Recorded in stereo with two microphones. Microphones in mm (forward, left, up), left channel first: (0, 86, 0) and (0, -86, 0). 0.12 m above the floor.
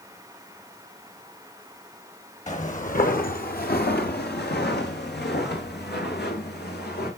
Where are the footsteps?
45° left (ahead or behind), 2 m; by 7.1 s 75° left (ahead or behind), 3.5 m.